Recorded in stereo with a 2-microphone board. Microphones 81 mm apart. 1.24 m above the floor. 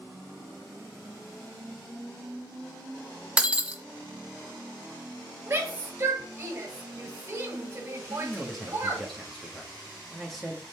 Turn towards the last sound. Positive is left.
turn(degrees=0)  # may be behind; listen again after turning